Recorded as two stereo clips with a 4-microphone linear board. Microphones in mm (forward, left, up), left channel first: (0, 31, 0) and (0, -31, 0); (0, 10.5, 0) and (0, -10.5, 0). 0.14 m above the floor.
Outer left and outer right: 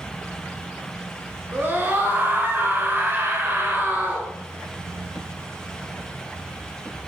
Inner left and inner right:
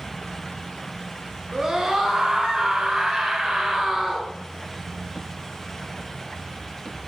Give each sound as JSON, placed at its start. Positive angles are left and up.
{"t": 1.5, "sound": "a scream", "side_deg": -30, "distance_m": 1.4}